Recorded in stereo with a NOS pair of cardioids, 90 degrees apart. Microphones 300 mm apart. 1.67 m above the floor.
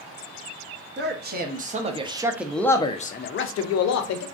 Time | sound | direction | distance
1.0 | a man speaking | 35° right | 1.2 m